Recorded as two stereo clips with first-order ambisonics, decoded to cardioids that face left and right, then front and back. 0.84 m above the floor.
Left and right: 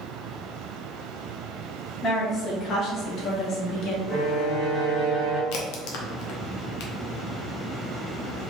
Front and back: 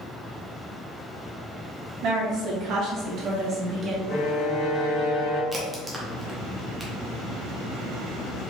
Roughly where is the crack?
Left.